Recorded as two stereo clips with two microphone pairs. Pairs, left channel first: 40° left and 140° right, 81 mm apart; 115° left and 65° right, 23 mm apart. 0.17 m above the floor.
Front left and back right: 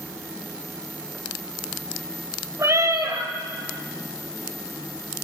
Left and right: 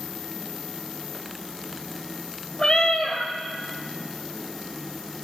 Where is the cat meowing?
170° left, 1.0 m.